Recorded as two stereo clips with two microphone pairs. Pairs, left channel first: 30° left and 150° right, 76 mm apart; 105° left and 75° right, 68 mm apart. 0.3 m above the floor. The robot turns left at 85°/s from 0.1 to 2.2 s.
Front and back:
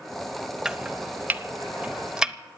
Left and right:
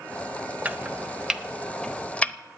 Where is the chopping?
85° right, 0.7 m; by 2.4 s 145° left, 0.7 m.